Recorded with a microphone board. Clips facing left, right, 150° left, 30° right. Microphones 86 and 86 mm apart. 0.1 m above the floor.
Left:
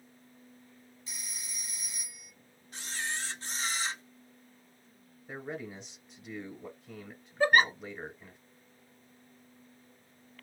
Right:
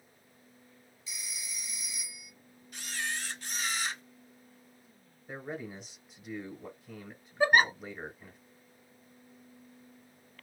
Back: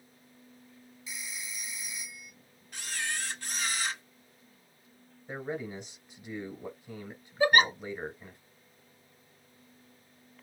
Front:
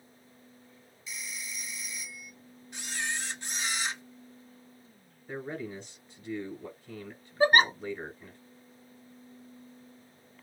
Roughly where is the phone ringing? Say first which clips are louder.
Right 2 dB, front 1 dB; left.